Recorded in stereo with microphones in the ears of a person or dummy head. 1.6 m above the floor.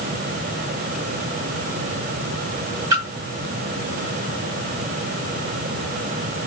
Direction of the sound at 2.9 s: 20° right (ahead or behind).